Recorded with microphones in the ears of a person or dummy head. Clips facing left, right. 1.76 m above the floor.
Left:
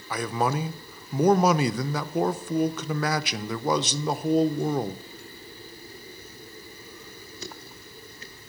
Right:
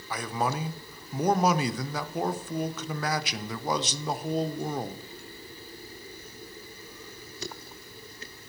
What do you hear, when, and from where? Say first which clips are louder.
0.1 s a man speaking: left 4 dB; 60° left (ahead or behind), 0.6 m